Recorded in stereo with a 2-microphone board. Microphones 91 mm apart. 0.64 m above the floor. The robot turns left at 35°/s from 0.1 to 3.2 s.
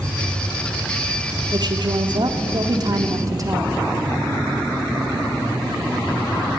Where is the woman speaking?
70° right, 1.5 m; by 3.8 s 130° right, 1.5 m.